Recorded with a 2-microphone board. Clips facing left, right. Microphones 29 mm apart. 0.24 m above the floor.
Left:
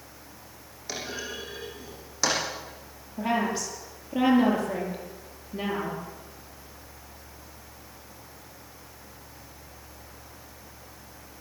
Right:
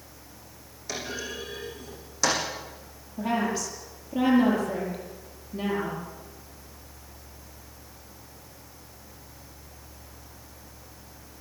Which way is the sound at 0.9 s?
10° left (ahead or behind).